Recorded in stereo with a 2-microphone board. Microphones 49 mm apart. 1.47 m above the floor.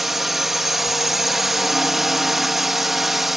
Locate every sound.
0.0 s a drone: 5° right (ahead or behind)